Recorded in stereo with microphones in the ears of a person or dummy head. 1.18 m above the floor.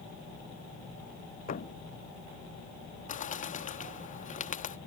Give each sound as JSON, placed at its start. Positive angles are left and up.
{"t": 1.5, "sound": "a thud", "side_deg": 45}
{"t": 3.1, "sound": "a bird", "side_deg": 40}